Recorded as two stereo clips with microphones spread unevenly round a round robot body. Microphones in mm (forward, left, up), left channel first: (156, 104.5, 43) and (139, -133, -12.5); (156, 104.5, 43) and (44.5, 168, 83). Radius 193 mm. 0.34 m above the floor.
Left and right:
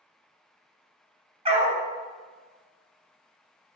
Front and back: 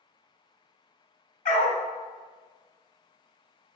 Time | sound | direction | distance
1.4 | a dog barking | 25° right | 1.1 m